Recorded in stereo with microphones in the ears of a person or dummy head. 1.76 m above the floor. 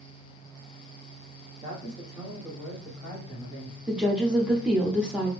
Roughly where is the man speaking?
Right.